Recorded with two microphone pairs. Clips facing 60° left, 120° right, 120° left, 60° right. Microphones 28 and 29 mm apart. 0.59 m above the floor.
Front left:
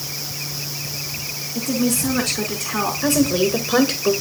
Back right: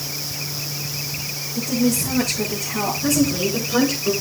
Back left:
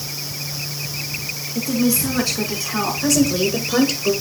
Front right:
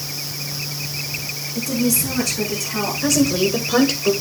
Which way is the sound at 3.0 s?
25° left.